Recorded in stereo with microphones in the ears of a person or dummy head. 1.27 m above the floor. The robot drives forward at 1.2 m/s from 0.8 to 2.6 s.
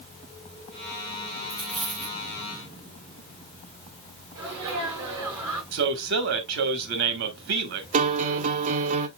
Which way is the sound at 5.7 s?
65° right (ahead or behind).